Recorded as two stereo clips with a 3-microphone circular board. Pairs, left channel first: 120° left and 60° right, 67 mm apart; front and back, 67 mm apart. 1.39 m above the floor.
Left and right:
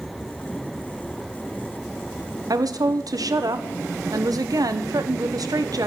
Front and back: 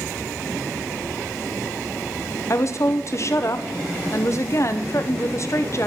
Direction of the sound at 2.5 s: 40° right.